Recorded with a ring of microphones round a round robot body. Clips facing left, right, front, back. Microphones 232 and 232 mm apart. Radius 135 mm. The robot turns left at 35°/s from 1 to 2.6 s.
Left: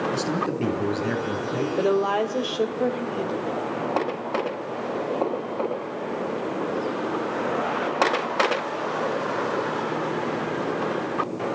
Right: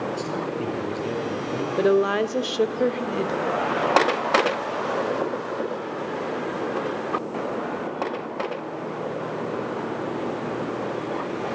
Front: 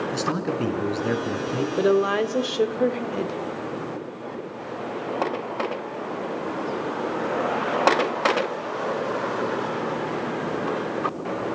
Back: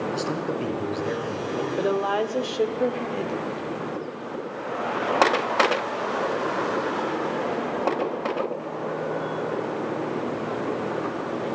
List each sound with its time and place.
0.1 s a man speaking: 20° left, 4.5 m; by 1.7 s straight ahead, 4.5 m
1.8 s a woman speaking: 30° right, 1.5 m; by 3.4 s 55° right, 1.5 m